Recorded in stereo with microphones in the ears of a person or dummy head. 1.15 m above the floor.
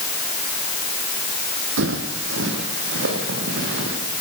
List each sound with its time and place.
1.8 s footsteps: 65° right (ahead or behind), 3 m; by 4.0 s 60° right (ahead or behind), 5.5 m